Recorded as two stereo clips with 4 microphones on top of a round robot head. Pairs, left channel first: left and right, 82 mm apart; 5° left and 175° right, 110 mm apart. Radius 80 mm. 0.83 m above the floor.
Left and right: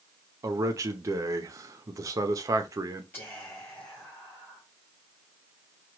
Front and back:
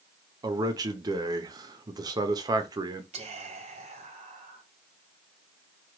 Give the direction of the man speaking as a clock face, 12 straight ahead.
4 o'clock.